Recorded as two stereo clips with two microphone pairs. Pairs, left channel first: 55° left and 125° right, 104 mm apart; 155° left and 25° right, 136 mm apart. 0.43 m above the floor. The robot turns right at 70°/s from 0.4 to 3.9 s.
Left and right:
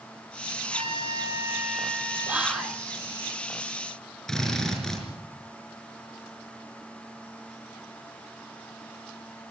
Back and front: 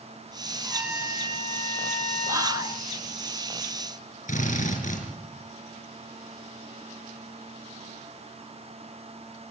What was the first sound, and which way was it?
A trumpet, 115° right.